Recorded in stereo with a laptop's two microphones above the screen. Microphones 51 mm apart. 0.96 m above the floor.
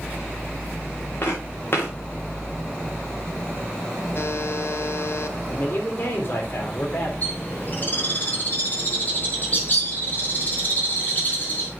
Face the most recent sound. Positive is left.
turn(degrees=35)  # may be behind; listen again after turning